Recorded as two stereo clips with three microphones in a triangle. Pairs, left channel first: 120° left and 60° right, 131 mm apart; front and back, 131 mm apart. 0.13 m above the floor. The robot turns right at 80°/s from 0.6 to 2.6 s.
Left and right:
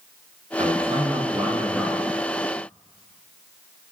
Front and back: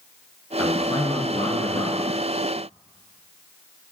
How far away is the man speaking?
About 1.6 m.